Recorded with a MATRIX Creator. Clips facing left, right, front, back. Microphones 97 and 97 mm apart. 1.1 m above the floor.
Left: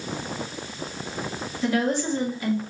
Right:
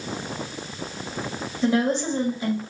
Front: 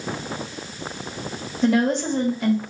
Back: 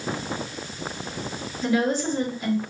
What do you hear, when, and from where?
1.6 s a woman speaking: 25° right, 2 m